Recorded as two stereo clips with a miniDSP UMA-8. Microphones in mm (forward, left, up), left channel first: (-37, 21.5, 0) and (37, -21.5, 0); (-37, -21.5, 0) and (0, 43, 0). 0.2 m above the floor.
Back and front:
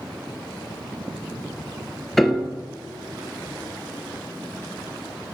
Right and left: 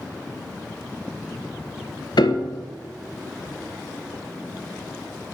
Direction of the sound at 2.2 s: 125° right.